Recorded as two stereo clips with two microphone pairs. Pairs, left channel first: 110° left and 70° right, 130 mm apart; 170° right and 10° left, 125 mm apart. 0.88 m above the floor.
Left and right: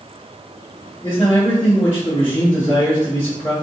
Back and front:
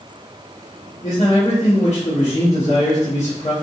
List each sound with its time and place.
1.0 s a man speaking: 175° right, 1.2 m